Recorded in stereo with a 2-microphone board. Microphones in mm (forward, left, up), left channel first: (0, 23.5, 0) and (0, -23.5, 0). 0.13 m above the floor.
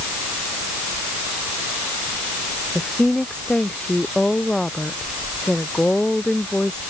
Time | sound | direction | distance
2.8 | a woman speaking | 15° left (ahead or behind) | ?